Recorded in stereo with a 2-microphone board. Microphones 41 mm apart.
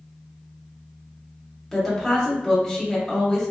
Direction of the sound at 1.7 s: 5° left (ahead or behind).